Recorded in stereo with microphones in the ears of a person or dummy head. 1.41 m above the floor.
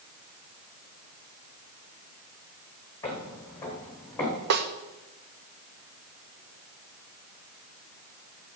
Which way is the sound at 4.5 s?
55° right (ahead or behind).